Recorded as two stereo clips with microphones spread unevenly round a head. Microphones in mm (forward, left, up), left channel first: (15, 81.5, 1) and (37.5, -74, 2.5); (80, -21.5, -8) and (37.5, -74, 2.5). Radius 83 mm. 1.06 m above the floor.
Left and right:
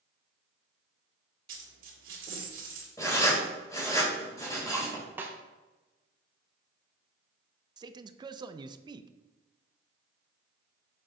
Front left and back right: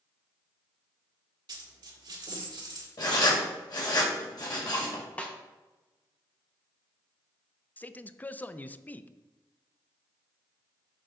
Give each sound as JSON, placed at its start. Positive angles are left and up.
{"t": 1.5, "sound": "a dropped coin", "azimuth_deg": -125, "distance_m": 1.6}
{"t": 3.0, "sound": "writing", "azimuth_deg": 25, "distance_m": 2.5}
{"t": 5.2, "sound": "a snare drum", "azimuth_deg": -5, "distance_m": 1.0}
{"t": 7.8, "sound": "a man speaking", "azimuth_deg": -15, "distance_m": 0.5}